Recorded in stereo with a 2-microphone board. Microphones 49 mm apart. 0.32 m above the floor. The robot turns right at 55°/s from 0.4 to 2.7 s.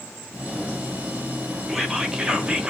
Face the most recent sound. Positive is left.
turn(degrees=-20)  # may be behind; listen again after turning